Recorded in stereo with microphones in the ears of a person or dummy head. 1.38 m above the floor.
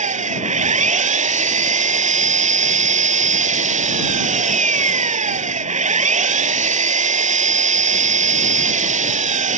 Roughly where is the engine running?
Right.